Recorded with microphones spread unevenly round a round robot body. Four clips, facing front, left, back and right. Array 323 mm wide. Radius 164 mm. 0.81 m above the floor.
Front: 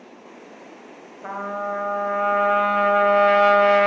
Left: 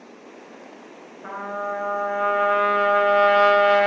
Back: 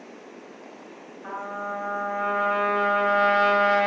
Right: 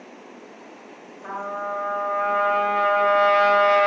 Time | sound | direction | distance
1.2 | a trumpet | 15° left | 0.7 m